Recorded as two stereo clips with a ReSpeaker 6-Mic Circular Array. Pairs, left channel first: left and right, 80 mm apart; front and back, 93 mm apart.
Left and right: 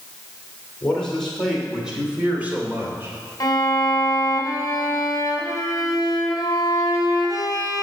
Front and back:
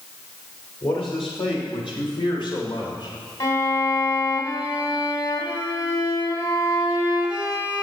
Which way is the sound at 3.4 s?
45° left.